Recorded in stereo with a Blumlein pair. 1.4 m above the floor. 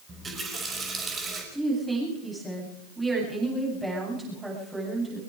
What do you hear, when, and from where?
0.1 s a running tap: 15° right, 5.5 m
1.5 s a woman speaking: 10° right, 9.5 m